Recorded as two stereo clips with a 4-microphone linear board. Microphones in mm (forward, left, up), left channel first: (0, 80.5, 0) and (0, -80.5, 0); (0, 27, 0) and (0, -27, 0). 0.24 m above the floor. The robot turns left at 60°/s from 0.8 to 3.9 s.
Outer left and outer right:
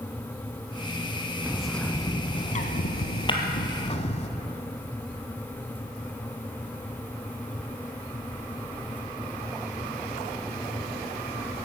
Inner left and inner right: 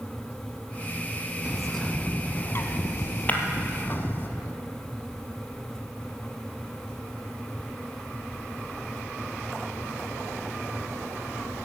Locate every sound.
1.4 s a bird: 165° right, 1.0 m; by 4.3 s 45° left, 1.0 m
3.3 s breaking glass: 30° left (ahead or behind), 1.4 m; by 3.4 s 35° left (ahead or behind), 1.4 m